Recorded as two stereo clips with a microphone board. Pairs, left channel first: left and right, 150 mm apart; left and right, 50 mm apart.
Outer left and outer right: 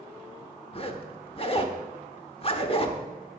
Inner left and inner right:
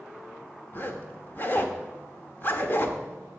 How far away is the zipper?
About 1.1 m.